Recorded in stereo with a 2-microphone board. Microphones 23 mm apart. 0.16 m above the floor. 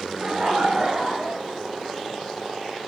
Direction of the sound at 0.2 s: 60° right (ahead or behind).